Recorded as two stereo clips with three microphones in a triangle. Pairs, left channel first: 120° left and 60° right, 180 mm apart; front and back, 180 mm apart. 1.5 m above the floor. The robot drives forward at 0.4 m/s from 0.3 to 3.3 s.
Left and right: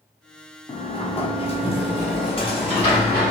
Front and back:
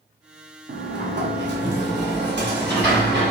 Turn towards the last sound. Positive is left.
turn(degrees=180)